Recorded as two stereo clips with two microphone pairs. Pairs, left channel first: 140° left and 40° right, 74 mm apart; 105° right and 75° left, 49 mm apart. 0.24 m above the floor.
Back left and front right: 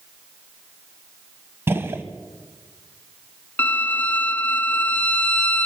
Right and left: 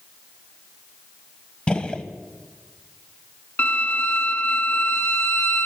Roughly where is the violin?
Behind right.